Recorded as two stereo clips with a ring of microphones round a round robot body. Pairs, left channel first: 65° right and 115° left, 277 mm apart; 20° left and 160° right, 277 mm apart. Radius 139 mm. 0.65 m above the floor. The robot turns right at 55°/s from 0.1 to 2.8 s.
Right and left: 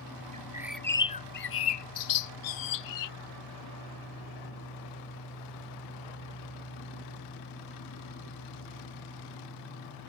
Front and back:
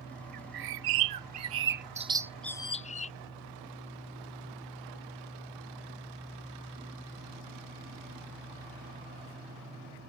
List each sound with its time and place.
0.3 s a bird: straight behind; by 3.1 s 45° right